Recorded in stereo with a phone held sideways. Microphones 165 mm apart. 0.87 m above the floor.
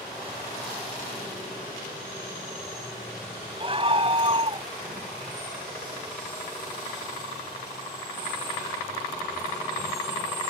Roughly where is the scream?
Right.